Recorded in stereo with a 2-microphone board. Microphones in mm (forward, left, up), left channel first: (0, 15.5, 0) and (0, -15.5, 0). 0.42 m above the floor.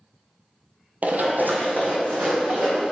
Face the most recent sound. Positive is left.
turn(degrees=-85)